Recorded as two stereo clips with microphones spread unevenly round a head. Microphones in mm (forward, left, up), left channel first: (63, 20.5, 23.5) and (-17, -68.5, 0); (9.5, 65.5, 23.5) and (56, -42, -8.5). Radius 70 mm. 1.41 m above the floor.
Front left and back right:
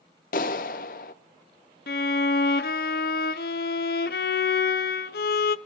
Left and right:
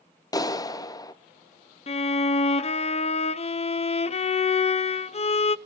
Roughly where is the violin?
Left.